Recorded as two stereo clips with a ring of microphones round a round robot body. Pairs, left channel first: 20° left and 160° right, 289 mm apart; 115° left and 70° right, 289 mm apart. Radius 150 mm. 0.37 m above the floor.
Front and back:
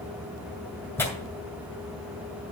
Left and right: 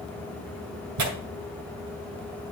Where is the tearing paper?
60° right, 2.5 m.